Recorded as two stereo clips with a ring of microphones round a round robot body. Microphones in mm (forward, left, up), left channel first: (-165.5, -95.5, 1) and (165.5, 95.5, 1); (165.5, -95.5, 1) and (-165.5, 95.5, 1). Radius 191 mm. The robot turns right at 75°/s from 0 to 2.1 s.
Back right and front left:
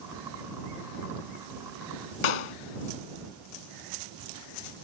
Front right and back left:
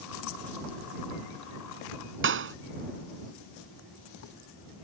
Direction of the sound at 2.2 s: 150° right.